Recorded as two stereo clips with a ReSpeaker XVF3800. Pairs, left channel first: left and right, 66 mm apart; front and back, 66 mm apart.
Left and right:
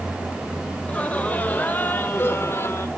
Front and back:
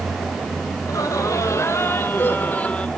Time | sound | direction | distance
0.8 | laughter | 20° left | 2.0 m